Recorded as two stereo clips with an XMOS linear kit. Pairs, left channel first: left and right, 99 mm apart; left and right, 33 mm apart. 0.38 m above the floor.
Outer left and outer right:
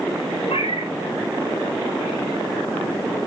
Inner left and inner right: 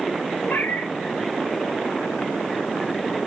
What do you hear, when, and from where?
0.5 s a cat meowing: 80° left, 1.5 m